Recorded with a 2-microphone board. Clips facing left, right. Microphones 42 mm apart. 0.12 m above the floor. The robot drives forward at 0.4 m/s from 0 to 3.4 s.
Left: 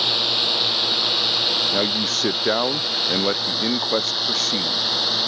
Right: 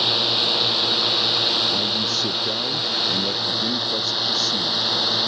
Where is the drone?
5° right (ahead or behind).